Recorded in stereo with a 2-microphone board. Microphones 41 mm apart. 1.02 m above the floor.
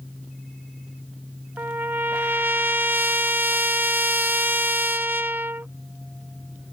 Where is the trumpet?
55° right (ahead or behind).